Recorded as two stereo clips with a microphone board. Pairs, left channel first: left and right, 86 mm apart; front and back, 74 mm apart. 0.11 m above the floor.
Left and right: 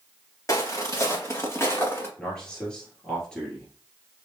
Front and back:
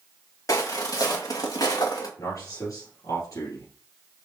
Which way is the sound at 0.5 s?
40° left.